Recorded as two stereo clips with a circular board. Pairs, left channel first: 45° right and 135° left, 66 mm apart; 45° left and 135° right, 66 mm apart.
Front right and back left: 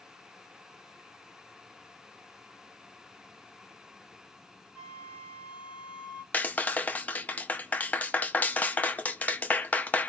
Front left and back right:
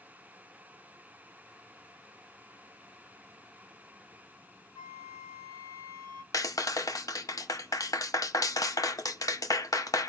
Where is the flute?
65° left, 1.6 m.